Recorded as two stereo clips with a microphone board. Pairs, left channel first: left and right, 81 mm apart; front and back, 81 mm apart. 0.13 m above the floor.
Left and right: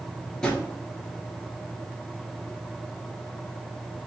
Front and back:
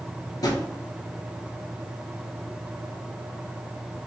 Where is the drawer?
10° left, 1.3 m.